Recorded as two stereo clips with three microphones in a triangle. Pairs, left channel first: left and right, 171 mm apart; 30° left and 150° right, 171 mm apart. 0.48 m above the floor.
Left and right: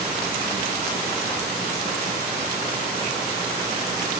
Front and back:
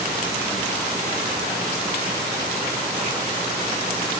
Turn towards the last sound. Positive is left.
No sound to turn to.